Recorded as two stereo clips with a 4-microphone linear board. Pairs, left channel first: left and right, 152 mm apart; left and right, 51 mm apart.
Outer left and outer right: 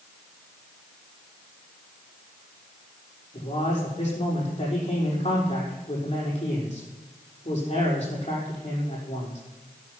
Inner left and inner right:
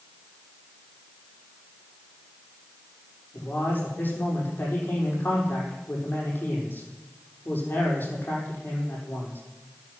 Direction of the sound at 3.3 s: 45° left (ahead or behind).